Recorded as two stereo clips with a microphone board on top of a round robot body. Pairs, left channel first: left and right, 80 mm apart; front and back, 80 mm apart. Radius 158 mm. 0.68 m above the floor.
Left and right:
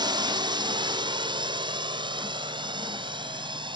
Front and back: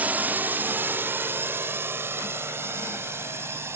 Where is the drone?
110° right; by 3.8 s 120° right.